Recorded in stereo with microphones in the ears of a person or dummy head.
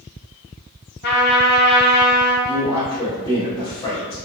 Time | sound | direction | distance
1.0 | a trumpet | 50° left (ahead or behind) | 1.0 m
2.5 | a man speaking | 15° left (ahead or behind) | 1.7 m